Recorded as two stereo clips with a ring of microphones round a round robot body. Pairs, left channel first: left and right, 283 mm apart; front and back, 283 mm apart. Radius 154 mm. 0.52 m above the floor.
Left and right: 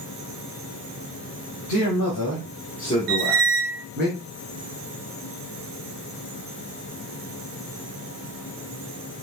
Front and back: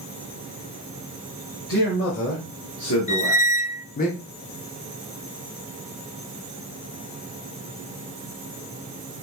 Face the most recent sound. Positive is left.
turn(degrees=-65)